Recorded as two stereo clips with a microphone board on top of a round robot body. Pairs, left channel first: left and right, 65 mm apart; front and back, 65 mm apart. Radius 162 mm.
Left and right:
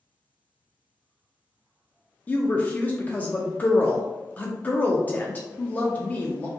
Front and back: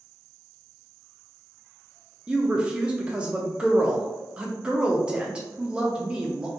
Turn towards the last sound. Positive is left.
turn(degrees=125)